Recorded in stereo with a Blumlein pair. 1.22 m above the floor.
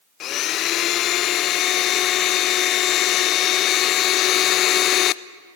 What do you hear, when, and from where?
0.2 s a blender: 35° left, 0.5 m